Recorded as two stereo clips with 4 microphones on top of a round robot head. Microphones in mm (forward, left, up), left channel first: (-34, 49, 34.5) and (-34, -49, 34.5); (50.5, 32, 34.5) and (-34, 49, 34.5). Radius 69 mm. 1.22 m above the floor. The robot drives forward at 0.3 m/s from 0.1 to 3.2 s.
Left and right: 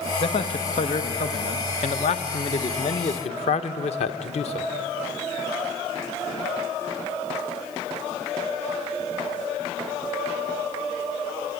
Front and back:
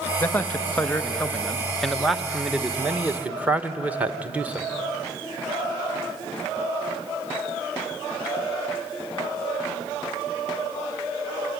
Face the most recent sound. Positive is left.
turn(degrees=95)